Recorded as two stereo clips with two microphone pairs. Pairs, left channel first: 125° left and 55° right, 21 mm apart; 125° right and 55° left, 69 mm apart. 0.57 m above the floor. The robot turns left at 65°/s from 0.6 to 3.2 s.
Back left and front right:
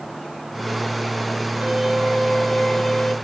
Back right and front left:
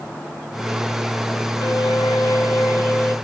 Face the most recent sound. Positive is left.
turn(degrees=165)